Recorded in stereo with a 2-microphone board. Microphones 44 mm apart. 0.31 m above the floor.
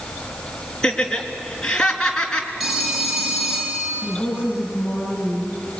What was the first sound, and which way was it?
Laughter, 15° left (ahead or behind).